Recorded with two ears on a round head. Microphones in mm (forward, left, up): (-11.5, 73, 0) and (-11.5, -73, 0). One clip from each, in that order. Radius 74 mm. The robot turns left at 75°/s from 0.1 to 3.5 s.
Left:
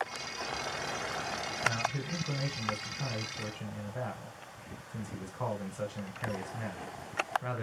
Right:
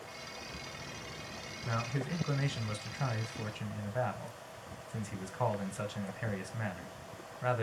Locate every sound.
1.6 s a man speaking: 15° right, 0.9 m; by 7.6 s 155° right, 0.9 m